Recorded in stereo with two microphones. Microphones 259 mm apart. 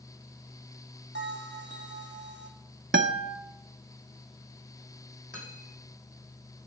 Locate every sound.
1.1 s a bell: 45° right (ahead or behind), 1.2 m
2.9 s a guitar: 45° right (ahead or behind), 0.6 m
5.3 s cutlery clinking: 35° right (ahead or behind), 3 m